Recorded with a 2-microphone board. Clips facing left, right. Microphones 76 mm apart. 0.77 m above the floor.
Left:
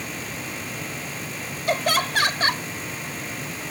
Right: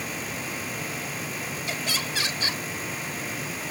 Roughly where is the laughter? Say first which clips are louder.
Left 12 dB; left.